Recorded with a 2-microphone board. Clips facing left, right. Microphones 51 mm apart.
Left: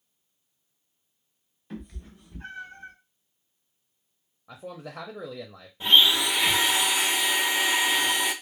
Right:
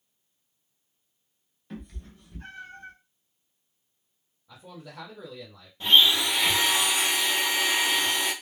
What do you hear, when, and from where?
1.7 s a cat meowing: 5° left (ahead or behind), 0.8 m; by 2.9 s 15° left (ahead or behind), 1.0 m
4.5 s a man speaking: 80° left, 0.6 m
5.8 s a blender: 15° left (ahead or behind), 0.9 m